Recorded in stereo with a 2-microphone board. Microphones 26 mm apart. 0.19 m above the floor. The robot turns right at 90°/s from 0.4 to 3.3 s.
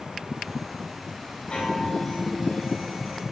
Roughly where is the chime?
Behind left.